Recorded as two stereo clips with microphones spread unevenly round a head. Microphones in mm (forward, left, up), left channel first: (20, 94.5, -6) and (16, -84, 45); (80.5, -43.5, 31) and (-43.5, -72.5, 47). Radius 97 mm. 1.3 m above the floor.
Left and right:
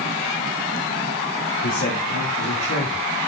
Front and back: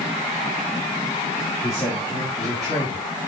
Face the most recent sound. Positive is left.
turn(degrees=115)